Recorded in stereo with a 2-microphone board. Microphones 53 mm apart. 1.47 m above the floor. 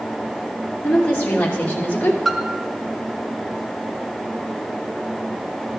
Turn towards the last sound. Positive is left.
turn(degrees=0)  # may be behind; listen again after turning